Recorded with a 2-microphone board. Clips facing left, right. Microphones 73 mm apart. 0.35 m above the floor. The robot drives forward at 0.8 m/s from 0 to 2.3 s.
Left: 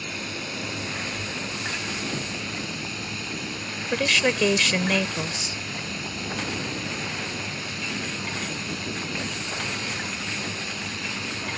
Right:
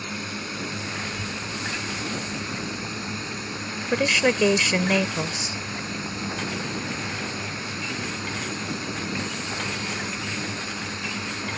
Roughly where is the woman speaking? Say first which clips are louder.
Right 2 dB; centre.